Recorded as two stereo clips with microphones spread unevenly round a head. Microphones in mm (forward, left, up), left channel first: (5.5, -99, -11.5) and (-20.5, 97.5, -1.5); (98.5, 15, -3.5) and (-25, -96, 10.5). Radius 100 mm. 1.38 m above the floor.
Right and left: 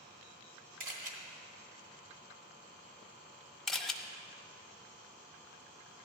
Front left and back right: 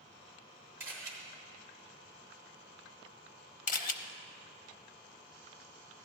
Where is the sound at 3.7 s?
5° left, 0.7 m.